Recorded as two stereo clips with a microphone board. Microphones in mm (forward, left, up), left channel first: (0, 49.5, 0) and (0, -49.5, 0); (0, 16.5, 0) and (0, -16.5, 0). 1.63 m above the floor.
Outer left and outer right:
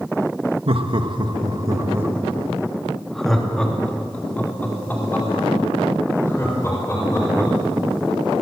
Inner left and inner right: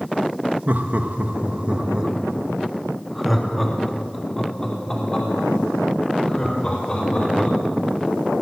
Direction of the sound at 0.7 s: 65° right (ahead or behind).